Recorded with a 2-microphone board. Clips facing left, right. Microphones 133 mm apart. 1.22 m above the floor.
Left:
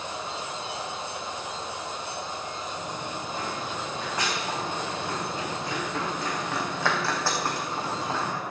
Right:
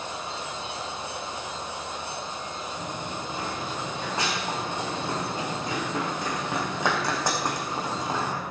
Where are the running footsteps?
25° right (ahead or behind), 7 m; by 8.4 s 10° right (ahead or behind), 4 m.